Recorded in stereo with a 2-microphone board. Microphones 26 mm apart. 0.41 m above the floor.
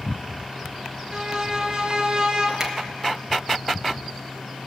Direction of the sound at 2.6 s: 20° right (ahead or behind).